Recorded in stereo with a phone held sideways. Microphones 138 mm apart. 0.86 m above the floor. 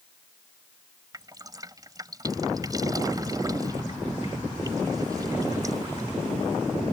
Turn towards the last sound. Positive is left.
turn(degrees=-25)  # may be behind; listen again after turning